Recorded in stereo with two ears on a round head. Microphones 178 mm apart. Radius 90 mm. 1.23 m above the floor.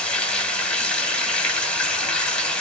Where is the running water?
5° left (ahead or behind), 1.0 m.